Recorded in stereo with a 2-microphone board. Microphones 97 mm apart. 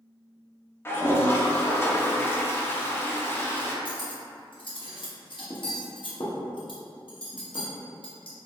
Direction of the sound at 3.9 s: 60° left (ahead or behind).